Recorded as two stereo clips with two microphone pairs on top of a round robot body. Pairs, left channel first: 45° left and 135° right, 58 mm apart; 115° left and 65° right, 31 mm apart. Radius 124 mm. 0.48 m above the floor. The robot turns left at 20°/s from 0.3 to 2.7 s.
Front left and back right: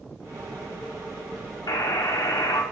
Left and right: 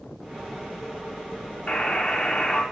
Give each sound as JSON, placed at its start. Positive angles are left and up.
{"t": 1.7, "sound": "a buzzer", "azimuth_deg": 55, "distance_m": 1.2}